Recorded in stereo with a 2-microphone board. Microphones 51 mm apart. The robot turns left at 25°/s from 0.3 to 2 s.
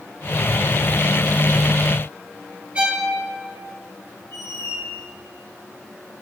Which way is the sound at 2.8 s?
25° right (ahead or behind).